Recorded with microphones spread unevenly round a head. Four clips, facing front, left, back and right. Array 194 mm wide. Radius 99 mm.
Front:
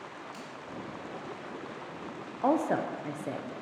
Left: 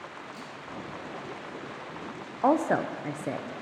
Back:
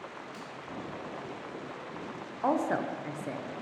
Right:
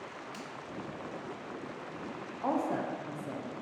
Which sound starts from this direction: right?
A finger snap, at 0.3 s.